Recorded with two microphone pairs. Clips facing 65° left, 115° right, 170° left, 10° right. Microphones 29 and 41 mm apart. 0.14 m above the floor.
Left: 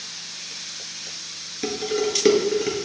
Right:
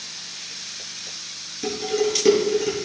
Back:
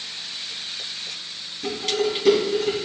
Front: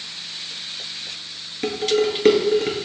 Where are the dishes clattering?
5° left, 1.6 m.